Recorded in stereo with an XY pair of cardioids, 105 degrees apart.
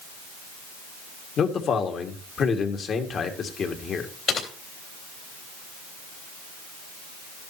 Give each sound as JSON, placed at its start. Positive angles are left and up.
{"t": 1.4, "sound": "a man speaking", "azimuth_deg": 55, "distance_m": 2.0}
{"t": 4.3, "sound": "typing on a keyboard", "azimuth_deg": 55, "distance_m": 3.5}